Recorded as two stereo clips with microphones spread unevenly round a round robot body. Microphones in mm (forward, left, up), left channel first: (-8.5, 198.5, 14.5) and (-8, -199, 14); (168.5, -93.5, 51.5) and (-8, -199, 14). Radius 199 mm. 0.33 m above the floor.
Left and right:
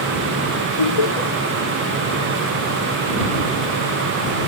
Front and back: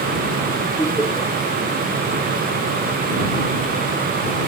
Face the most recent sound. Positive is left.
turn(degrees=115)